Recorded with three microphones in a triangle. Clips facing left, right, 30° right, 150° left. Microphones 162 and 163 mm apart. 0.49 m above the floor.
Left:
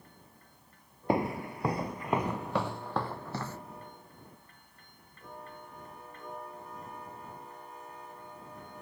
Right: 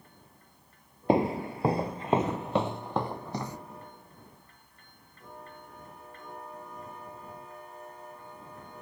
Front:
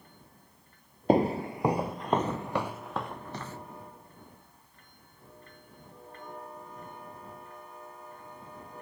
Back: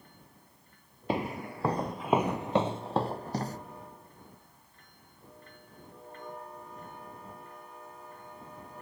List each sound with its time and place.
1.1 s footsteps: 35° right; by 3.6 s 165° right